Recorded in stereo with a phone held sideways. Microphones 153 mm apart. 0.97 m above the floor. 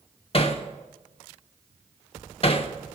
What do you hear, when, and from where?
0.3 s hammering: 40° left (ahead or behind), 0.8 m